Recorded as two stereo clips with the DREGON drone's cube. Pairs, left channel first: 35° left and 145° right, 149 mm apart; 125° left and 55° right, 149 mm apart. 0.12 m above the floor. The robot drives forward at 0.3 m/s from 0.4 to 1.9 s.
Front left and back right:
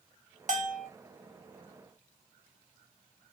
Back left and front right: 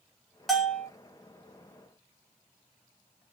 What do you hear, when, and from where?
0.5 s a bell: 150° right, 0.7 m; by 0.9 s 155° right, 0.7 m